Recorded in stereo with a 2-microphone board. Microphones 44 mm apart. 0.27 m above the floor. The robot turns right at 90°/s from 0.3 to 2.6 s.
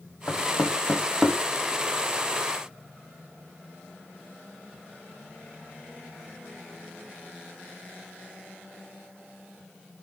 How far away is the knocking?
About 1.3 m.